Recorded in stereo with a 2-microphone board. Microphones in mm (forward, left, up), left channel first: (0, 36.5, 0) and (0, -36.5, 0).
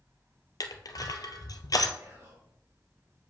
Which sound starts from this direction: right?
Whispering, at 2.0 s.